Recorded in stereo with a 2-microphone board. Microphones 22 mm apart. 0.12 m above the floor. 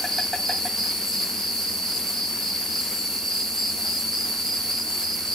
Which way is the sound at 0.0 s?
20° left (ahead or behind).